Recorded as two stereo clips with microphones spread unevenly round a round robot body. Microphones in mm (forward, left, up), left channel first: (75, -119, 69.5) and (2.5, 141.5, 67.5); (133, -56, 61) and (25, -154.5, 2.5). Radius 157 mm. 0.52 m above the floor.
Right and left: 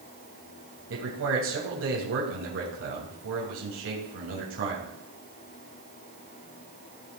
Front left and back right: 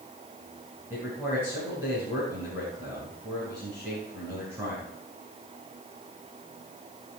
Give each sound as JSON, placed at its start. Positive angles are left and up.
{"t": 0.9, "sound": "a man speaking", "azimuth_deg": 150, "distance_m": 3.0}